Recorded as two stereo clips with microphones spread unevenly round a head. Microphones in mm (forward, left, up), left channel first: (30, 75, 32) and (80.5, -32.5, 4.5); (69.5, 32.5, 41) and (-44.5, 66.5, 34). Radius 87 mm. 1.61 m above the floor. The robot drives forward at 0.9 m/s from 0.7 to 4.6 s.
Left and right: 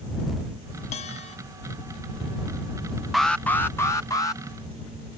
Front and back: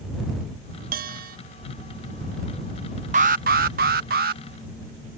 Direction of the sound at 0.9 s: 170° left.